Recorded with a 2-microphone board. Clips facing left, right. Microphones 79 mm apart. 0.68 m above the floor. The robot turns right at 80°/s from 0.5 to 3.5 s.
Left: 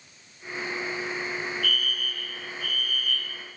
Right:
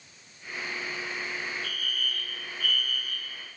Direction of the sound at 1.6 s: 155° right.